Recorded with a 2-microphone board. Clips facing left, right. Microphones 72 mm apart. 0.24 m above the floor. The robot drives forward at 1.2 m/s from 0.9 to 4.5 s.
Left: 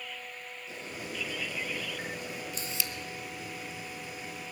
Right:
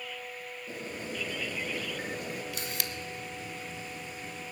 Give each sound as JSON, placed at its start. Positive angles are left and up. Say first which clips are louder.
{"t": 0.7, "sound": "boiling", "louder": "right 2 dB", "side_deg": -40, "distance_m": 4.0}
{"t": 2.5, "sound": "a camera shutter", "louder": "right 1 dB", "side_deg": -85, "distance_m": 0.6}